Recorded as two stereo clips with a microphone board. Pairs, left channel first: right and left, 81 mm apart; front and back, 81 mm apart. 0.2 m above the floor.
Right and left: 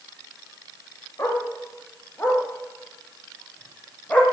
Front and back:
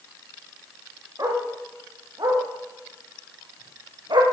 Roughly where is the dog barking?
Behind right.